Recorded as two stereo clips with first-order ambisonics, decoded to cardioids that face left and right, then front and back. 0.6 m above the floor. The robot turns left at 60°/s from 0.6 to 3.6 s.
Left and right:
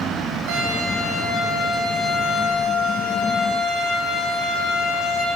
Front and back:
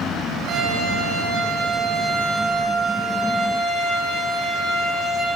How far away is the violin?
About 9.5 m.